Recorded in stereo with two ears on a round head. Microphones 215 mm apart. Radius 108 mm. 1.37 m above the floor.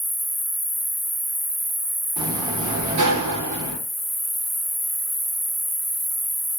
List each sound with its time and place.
0.0 s an insect: centre (ahead or behind), 1.5 m
2.2 s a sliding door: 80° right, 0.9 m